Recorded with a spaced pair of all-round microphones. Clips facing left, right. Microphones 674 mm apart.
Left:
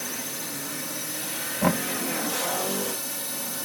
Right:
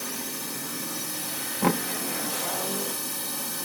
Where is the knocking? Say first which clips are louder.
Even; 15° left (ahead or behind).